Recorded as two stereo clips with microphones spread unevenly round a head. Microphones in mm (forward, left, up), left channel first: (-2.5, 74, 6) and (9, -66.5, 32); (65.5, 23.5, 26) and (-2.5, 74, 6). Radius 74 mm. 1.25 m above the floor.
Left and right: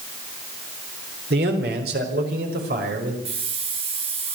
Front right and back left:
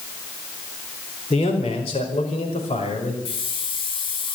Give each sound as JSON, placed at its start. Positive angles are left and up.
{"t": 1.3, "sound": "a man speaking", "azimuth_deg": -75, "distance_m": 4.0}
{"t": 3.2, "sound": "a hiss", "azimuth_deg": -40, "distance_m": 7.5}